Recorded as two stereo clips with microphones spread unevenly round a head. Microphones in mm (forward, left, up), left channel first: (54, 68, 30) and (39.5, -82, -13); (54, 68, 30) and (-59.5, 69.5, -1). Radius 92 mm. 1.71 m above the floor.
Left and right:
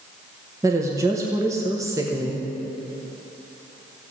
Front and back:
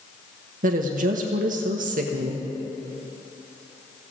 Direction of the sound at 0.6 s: 175° right.